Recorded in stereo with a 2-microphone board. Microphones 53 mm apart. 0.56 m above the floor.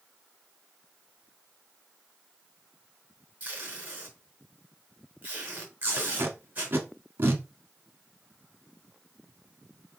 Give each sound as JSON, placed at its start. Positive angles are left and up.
{"t": 3.4, "sound": "tape being pulled", "side_deg": -30, "distance_m": 4.0}
{"t": 6.0, "sound": "tape being pulled", "side_deg": -45, "distance_m": 1.6}